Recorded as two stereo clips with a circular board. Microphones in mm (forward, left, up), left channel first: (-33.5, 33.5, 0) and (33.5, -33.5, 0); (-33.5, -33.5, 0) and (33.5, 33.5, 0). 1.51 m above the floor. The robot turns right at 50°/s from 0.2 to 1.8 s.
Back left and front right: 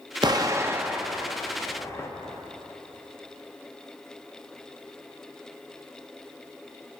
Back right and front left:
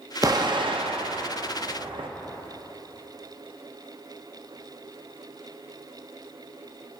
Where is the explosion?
5° right, 0.7 m; by 2.1 s 75° left, 0.7 m.